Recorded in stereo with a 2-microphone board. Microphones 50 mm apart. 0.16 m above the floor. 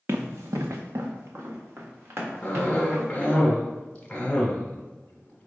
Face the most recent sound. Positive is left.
turn(degrees=20)  # may be behind; listen again after turning